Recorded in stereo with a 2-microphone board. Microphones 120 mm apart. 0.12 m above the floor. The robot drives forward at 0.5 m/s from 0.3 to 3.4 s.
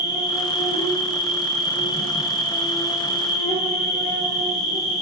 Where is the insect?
45° left (ahead or behind), 7.5 m; by 5.0 s 35° left (ahead or behind), 9 m.